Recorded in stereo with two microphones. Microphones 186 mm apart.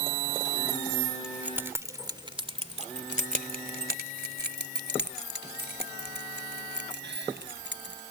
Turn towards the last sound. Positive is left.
turn(degrees=-85)